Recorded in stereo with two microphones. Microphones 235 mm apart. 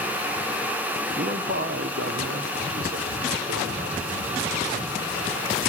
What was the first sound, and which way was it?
A man speaking, 45° right (ahead or behind).